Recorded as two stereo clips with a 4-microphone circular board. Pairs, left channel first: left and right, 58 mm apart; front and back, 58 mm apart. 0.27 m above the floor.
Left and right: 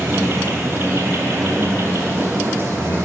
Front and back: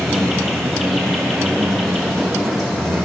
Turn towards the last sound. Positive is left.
turn(degrees=-90)